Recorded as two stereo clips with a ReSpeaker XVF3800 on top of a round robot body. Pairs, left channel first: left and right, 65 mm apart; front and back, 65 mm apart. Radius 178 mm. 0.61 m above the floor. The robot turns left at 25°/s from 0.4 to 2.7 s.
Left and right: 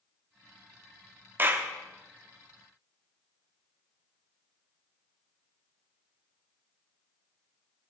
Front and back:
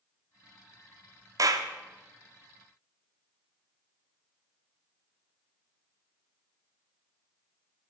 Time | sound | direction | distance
1.4 | a clap | 145° right | 1.0 m